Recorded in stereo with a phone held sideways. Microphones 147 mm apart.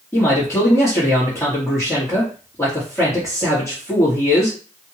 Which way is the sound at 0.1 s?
20° left (ahead or behind).